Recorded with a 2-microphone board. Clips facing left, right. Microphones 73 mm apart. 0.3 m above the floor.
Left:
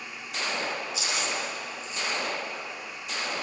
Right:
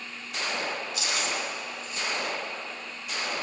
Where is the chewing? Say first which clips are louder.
Even; 60° right (ahead or behind), 3.5 m.